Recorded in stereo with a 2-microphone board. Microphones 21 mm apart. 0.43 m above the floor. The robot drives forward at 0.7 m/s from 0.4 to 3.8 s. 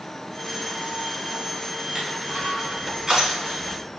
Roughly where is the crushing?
Right.